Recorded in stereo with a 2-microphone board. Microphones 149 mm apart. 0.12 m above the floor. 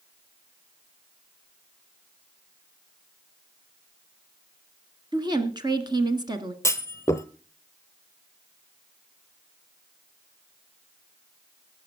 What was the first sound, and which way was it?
A woman speaking, 30° right (ahead or behind).